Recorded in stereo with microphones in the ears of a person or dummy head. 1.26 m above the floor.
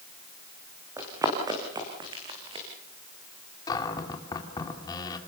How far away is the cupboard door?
About 2 m.